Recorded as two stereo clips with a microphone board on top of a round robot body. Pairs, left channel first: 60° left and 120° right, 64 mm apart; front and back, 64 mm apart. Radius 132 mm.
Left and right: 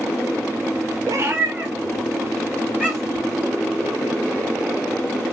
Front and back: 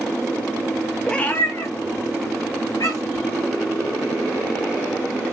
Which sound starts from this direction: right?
A cat meowing, at 1.1 s.